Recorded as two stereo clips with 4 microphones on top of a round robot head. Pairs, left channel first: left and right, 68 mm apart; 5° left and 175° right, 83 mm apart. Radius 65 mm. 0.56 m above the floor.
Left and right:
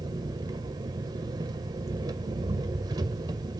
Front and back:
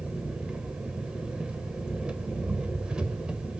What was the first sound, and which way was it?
An engine running, 95° right.